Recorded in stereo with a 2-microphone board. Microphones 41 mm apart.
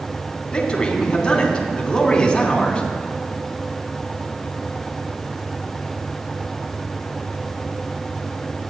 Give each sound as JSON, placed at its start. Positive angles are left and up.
{"t": 0.5, "sound": "a man speaking", "side_deg": 20, "distance_m": 3.0}